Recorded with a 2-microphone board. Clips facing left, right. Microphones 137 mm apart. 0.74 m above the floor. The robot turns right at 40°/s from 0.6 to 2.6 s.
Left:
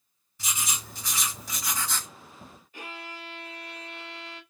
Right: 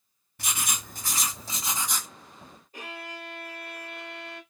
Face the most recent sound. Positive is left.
turn(degrees=-35)  # may be behind; listen again after turning